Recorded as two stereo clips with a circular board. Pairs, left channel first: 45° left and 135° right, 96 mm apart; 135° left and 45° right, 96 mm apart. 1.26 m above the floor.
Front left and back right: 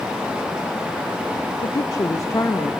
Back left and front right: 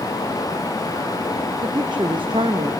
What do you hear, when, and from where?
1.6 s a woman speaking: straight ahead, 0.8 m; by 2.7 s 20° right, 1.4 m